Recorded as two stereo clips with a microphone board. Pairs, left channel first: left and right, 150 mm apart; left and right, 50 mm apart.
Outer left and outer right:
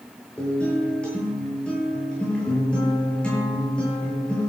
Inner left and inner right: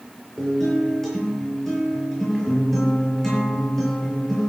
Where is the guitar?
5° left (ahead or behind), 8 m.